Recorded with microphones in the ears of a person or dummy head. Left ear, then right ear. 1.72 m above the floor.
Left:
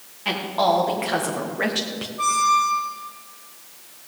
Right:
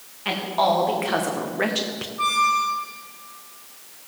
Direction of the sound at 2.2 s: Centre (ahead or behind).